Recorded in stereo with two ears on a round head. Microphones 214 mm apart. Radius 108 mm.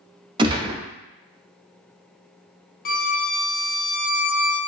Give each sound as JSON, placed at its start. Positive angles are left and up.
{"t": 0.4, "sound": "a gunshot", "side_deg": -20, "distance_m": 0.6}
{"t": 2.9, "sound": "a violin", "side_deg": 40, "distance_m": 0.5}